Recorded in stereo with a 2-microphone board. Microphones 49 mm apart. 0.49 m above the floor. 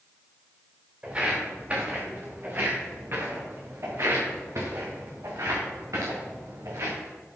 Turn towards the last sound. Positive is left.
turn(degrees=-80)